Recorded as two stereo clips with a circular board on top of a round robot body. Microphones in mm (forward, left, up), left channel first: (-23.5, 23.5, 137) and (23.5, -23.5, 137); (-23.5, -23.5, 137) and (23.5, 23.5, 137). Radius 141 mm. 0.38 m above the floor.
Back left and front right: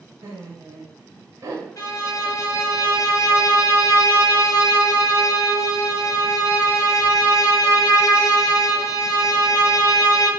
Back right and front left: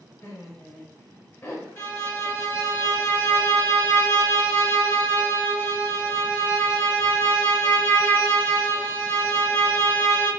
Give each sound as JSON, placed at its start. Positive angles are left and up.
{"t": 0.2, "sound": "laughter", "azimuth_deg": -85, "distance_m": 2.0}
{"t": 1.8, "sound": "a violin", "azimuth_deg": 175, "distance_m": 1.5}